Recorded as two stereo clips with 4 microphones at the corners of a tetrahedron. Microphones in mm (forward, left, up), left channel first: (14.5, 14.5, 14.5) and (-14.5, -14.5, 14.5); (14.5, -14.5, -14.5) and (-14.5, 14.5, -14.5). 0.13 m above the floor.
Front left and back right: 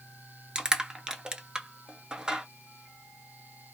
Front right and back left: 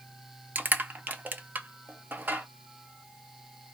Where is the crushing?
160° left, 0.6 m.